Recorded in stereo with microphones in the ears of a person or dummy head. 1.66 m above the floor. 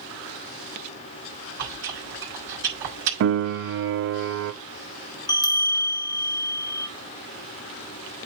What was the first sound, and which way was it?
Chewing, 70° right (ahead or behind).